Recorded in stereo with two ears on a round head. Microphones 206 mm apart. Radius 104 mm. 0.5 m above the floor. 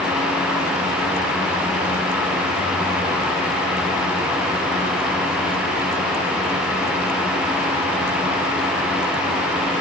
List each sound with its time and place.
Only background noise.